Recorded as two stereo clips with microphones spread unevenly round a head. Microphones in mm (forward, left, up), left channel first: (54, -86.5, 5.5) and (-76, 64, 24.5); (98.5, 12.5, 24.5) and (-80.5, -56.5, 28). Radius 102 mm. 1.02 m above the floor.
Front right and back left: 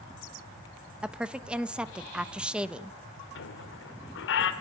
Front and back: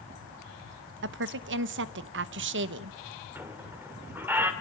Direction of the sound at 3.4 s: 80° right.